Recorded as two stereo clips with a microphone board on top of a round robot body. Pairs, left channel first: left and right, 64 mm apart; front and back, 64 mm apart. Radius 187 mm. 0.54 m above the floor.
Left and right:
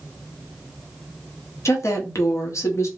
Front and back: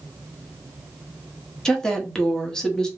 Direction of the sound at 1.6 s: 75° left.